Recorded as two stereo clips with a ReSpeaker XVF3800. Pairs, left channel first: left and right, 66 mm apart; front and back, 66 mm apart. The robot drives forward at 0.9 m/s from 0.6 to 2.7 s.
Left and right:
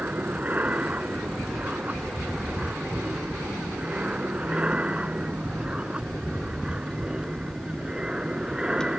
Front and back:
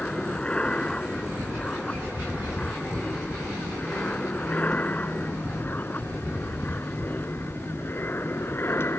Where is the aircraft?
60° right; by 9.0 s 20° right.